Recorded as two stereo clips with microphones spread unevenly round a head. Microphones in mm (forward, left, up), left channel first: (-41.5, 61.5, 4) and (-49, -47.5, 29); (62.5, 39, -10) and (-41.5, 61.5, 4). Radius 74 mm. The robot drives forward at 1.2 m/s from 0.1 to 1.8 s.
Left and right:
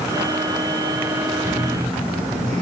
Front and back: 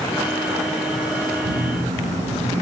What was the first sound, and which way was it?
A phone buzzing, 170° left.